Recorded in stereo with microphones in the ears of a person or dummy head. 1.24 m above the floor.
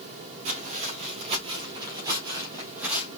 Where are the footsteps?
45° right (ahead or behind), 2 m; by 3.1 s 5° right (ahead or behind), 2.0 m.